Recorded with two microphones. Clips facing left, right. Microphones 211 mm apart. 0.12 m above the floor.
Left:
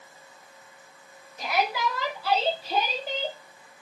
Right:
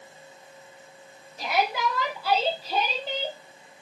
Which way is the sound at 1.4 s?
30° right (ahead or behind).